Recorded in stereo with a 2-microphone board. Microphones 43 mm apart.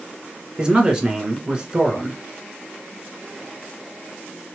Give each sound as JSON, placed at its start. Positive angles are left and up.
{"t": 0.6, "sound": "a man speaking", "side_deg": -20, "distance_m": 1.1}